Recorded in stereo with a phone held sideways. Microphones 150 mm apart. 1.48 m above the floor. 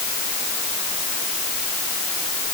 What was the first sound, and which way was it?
Only background noise.